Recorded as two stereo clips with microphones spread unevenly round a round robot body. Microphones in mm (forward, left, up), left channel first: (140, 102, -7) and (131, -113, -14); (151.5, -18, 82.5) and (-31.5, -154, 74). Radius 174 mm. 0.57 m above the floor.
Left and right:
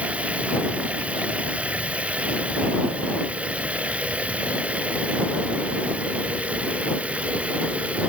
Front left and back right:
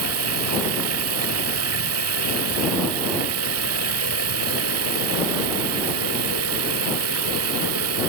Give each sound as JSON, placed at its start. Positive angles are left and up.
{"t": 0.0, "sound": "running water", "azimuth_deg": 180}